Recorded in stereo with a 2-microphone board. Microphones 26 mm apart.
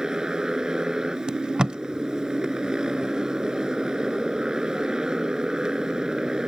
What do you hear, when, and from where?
0.0 s a motorcycle: 30° right (ahead or behind)
1.3 s tape being pulled: 35° right (ahead or behind)